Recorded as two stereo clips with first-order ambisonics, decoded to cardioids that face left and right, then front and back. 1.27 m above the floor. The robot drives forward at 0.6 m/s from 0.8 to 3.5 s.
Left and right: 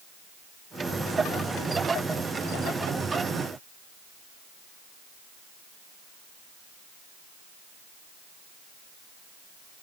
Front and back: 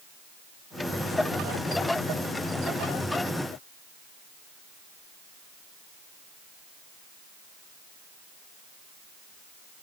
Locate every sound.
Only background noise.